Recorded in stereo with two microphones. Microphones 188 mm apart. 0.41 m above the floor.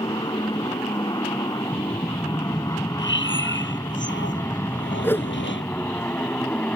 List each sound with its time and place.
0.0 s an aircraft: 20° left (ahead or behind); by 6.8 s 10° left (ahead or behind)
3.0 s breathing: 80° left
5.0 s a whoosh: 10° left (ahead or behind)